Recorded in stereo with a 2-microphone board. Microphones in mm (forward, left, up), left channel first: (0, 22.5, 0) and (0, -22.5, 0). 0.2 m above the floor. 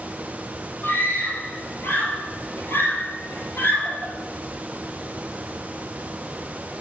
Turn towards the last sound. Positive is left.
turn(degrees=45)  # may be behind; listen again after turning